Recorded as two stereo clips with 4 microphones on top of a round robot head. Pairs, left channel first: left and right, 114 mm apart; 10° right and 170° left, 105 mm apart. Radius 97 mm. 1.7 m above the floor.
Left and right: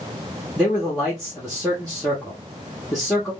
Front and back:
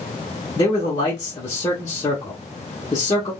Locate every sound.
0.6 s a man speaking: straight ahead, 0.7 m